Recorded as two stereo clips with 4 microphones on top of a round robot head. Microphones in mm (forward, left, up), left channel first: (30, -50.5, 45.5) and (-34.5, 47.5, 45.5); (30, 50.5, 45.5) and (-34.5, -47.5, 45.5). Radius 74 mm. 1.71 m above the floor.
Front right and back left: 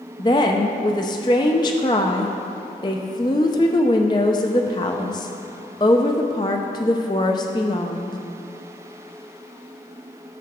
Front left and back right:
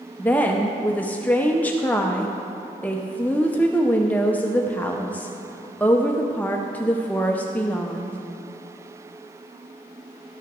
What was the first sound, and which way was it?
A woman speaking, 15° right.